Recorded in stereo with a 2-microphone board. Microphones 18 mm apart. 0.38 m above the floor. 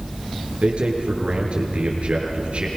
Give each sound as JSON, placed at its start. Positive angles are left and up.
{"t": 0.6, "sound": "a man speaking", "side_deg": -75, "distance_m": 6.5}